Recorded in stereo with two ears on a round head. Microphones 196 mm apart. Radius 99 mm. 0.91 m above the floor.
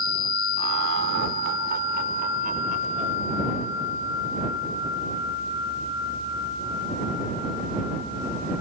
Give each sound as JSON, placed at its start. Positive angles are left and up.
{"t": 0.6, "sound": "laughter", "side_deg": -70}